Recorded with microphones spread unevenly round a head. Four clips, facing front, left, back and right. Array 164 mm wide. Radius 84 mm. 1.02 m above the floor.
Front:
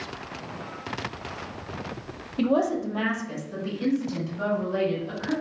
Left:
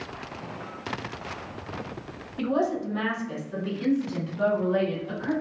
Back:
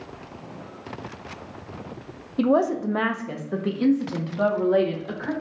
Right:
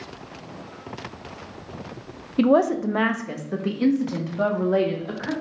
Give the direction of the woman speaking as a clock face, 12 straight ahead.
3 o'clock.